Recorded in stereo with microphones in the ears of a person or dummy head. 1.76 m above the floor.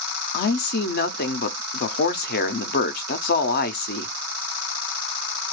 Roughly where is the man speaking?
Left.